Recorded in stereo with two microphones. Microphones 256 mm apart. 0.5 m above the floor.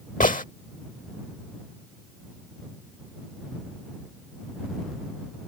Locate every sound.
0.2 s a gunshot: 30° left (ahead or behind)